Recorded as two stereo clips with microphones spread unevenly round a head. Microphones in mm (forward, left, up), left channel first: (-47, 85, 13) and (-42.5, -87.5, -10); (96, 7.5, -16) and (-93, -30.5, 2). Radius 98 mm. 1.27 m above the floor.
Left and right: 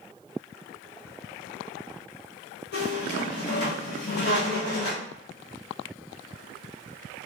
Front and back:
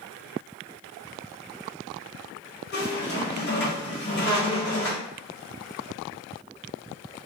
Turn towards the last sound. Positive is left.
turn(degrees=50)